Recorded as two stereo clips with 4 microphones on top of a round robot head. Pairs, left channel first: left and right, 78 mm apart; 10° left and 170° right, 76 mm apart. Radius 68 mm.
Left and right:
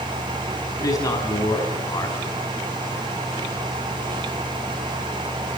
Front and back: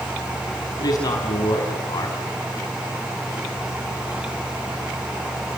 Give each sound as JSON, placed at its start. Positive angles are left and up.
{"t": 0.8, "sound": "a man speaking", "azimuth_deg": 50, "distance_m": 5.0}